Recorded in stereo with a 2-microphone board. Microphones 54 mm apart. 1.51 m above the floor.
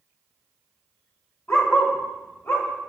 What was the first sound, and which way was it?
A dog barking, 55° left (ahead or behind).